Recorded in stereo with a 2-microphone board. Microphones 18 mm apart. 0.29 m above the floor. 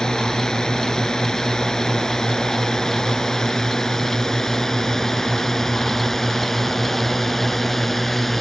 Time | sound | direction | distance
0.0 | a drone | 35° left (ahead or behind) | ?